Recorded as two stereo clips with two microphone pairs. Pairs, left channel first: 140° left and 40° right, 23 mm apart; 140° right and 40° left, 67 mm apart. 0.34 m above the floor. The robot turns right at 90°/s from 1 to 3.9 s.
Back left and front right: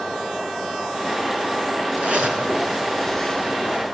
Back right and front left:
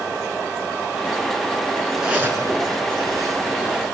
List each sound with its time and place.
2.0 s a zipper: 40° right, 3.5 m; by 3.9 s 125° left, 3.5 m